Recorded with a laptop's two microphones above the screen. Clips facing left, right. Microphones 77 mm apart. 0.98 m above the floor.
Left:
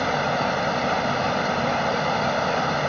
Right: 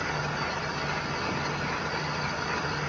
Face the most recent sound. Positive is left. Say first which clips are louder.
# left 8 dB
turn(degrees=80)